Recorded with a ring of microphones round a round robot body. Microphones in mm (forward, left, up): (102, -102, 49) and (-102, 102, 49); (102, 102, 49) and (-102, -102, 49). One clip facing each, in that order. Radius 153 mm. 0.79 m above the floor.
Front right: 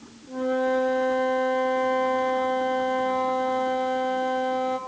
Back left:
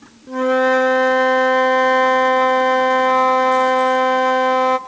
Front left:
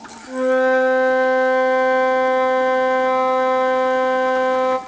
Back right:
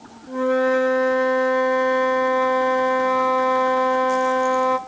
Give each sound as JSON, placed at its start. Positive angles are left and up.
{"t": 0.3, "sound": "a flute", "azimuth_deg": 140, "distance_m": 1.0}